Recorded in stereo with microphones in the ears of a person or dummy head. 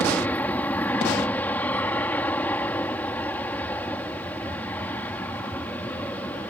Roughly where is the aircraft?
Centre.